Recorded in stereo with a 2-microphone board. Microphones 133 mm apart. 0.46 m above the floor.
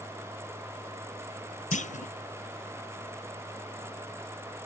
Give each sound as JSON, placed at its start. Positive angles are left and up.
{"t": 1.7, "sound": "a clunk", "side_deg": 65, "distance_m": 0.5}